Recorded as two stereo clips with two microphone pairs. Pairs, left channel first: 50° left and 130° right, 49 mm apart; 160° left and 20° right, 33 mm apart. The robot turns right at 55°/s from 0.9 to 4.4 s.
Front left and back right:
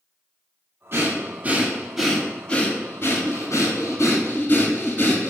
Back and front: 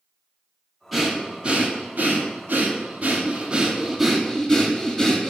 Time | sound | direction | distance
0.9 | breathing | 100° right | 1.1 m